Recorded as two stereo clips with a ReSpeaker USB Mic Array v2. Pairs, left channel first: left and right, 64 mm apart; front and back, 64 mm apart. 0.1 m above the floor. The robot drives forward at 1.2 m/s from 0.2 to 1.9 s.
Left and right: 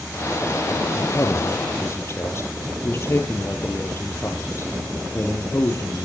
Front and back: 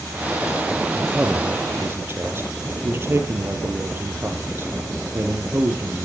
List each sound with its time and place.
0.9 s a man speaking: 100° left, 2.0 m; by 6.0 s 135° left, 2.5 m